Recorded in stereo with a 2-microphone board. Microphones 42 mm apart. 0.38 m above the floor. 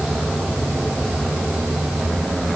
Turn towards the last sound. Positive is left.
No sound to turn to.